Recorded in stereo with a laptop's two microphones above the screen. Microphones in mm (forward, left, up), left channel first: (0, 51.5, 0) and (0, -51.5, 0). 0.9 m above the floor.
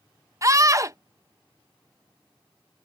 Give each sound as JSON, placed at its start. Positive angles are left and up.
{"t": 0.4, "sound": "a scream", "side_deg": -35}